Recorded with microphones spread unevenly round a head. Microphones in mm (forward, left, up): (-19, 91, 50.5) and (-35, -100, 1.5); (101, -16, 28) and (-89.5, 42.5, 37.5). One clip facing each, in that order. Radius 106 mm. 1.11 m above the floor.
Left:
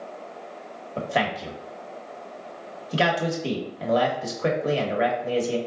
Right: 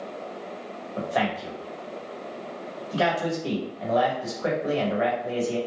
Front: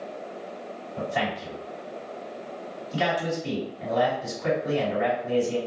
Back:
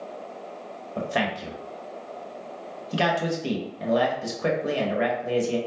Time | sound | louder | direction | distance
1.0 | a man speaking | even, back 2 dB | 145° left | 1.2 m